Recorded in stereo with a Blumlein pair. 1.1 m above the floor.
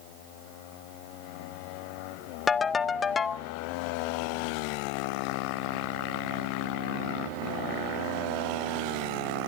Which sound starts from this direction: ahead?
A ringtone, at 2.5 s.